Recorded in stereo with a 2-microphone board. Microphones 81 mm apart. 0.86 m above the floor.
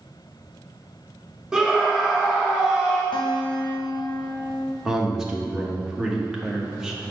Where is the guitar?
65° left (ahead or behind), 0.7 m.